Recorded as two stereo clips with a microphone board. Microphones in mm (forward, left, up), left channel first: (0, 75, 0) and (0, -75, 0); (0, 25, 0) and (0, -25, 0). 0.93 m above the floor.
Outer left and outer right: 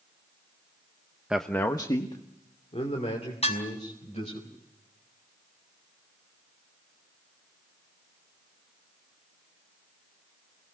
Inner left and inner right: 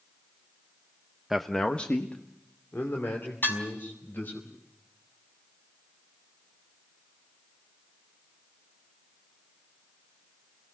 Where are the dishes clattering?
45° left (ahead or behind), 5 m.